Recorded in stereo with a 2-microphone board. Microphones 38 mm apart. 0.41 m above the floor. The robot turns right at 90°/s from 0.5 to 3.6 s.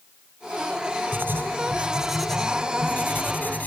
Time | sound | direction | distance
1.1 | writing | 95° right | ?